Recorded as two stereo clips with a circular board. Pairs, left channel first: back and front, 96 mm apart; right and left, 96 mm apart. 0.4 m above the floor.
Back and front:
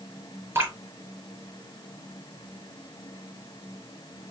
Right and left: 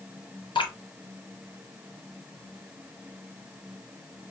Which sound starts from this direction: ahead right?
Dripping, at 0.6 s.